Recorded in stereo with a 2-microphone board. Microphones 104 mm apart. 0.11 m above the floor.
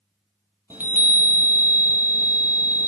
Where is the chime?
20° right (ahead or behind), 0.8 m.